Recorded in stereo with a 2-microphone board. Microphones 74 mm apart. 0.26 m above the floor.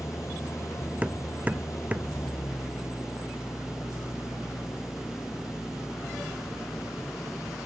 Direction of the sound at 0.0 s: 40° left (ahead or behind).